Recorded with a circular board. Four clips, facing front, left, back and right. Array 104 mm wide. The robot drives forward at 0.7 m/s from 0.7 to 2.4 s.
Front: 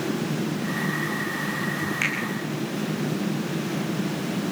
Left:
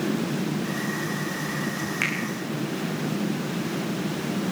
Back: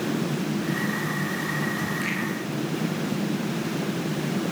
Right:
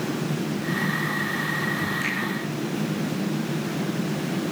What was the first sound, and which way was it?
A finger snap, 50° left.